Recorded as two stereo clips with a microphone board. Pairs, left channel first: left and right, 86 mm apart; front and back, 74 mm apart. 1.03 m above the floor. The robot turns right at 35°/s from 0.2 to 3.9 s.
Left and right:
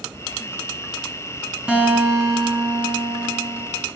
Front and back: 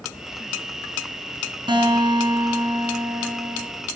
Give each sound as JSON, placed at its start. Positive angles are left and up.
{"t": 1.7, "sound": "a guitar", "azimuth_deg": -170, "distance_m": 5.0}